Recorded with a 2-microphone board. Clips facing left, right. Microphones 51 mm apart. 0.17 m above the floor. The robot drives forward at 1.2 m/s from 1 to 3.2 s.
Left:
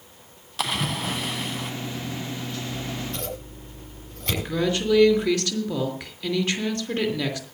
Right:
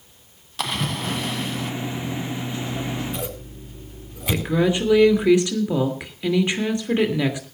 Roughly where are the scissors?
Centre.